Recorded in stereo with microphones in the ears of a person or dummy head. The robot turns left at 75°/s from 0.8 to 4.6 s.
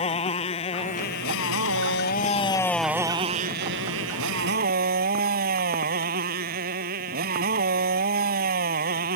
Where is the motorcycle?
150° left; by 9.2 s 135° right.